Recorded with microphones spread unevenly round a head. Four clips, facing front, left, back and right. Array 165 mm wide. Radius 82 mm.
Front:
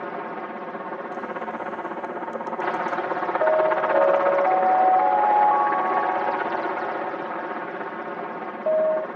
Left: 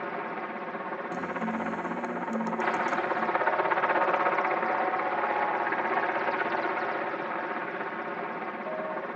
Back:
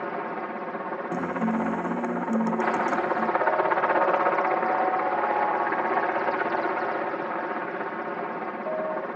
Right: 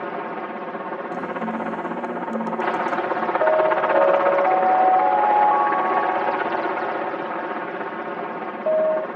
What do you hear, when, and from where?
0.0 s a helicopter: 90° right
1.1 s a guitar: 160° right
3.4 s an alarm: 55° right